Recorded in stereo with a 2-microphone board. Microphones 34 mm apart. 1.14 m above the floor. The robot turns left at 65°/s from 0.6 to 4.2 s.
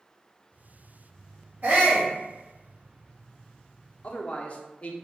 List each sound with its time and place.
1.6 s a shout: 60° right, 1.7 m; by 2.1 s 90° right, 1.7 m
4.0 s a man speaking: 40° left (ahead or behind), 0.6 m